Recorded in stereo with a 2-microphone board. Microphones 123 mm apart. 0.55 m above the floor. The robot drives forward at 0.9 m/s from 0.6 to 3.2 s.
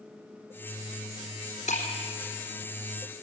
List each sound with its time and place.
1.7 s breaking glass: 70° left (ahead or behind), 4 m